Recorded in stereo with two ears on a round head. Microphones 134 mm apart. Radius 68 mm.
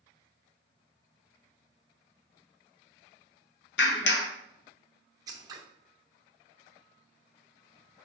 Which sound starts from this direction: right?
Scissors, at 5.3 s.